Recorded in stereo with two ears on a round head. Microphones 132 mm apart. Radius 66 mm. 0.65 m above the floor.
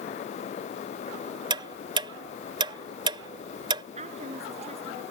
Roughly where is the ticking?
Right.